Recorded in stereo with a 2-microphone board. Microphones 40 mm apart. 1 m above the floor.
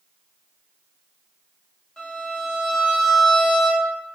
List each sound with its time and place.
2.0 s a violin: 20° left (ahead or behind), 0.8 m